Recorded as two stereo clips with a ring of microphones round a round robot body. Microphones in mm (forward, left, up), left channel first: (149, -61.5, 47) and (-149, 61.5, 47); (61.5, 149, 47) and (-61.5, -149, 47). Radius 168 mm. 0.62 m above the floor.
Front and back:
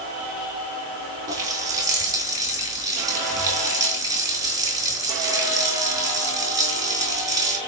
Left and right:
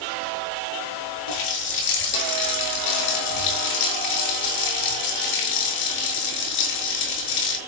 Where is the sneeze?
I don't hear a sneeze.